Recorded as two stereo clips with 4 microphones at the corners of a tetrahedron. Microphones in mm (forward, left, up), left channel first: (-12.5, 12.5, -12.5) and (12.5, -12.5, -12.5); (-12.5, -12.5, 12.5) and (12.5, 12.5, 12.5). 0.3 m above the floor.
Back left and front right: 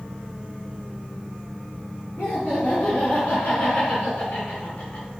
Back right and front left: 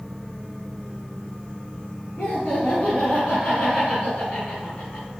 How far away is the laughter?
About 3 m.